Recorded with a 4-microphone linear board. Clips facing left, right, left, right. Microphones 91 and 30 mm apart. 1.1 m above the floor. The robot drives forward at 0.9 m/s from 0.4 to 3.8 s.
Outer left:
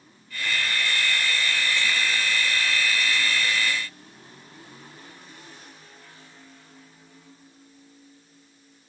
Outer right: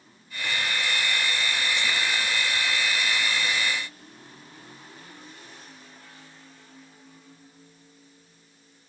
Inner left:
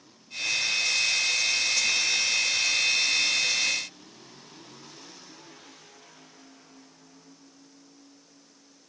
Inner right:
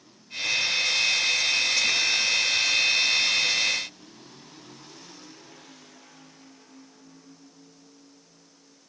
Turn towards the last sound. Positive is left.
No sound to turn to.